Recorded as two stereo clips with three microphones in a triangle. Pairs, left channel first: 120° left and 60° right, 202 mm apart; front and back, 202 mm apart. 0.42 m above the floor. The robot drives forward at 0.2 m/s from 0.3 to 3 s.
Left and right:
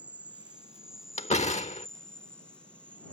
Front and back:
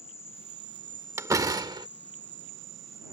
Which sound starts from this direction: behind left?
A door slam, at 1.2 s.